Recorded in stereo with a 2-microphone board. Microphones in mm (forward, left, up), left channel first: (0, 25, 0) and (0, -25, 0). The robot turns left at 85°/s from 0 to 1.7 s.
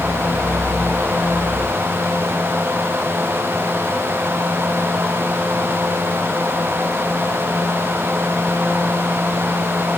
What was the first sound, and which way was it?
Only background noise.